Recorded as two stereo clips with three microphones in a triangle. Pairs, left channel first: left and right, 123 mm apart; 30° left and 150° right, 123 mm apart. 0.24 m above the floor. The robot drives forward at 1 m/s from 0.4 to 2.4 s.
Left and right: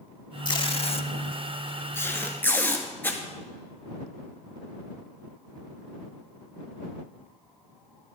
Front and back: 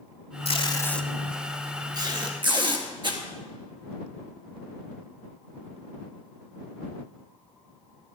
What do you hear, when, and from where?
0.5 s tape being pulled: 45° left, 0.7 m; by 3.2 s 165° left, 1.7 m